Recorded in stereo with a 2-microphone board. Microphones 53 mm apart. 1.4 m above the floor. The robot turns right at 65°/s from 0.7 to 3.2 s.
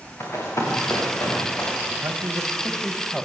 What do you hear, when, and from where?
0.2 s running footsteps: 55° left (ahead or behind), 6 m; by 1.7 s 45° left (ahead or behind), 7.5 m
1.9 s a man speaking: 75° right, 2.0 m; by 3.3 s 10° left, 2.0 m